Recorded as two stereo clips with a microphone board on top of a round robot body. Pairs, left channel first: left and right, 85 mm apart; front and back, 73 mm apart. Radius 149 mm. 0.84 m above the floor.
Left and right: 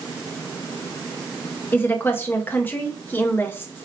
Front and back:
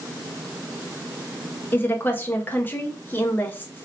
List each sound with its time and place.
1.7 s a woman speaking: 40° left, 0.6 m